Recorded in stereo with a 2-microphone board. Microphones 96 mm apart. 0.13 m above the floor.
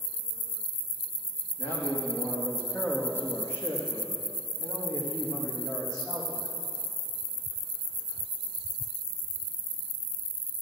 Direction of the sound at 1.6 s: 30° left (ahead or behind).